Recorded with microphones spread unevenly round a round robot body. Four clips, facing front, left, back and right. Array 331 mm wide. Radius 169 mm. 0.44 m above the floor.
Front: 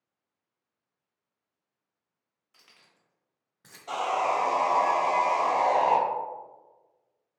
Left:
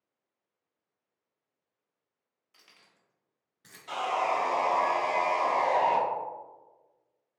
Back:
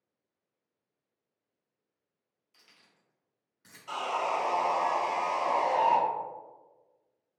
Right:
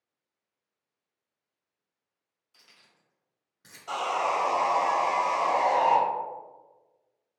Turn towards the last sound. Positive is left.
turn(degrees=-20)